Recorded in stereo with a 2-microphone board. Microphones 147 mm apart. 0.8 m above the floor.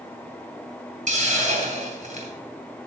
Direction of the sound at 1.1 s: 60° right (ahead or behind).